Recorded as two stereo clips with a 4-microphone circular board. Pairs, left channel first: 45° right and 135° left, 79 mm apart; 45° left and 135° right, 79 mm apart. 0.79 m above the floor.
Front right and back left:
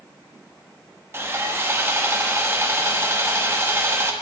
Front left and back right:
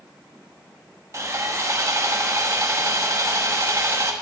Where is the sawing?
175° right, 1.1 m.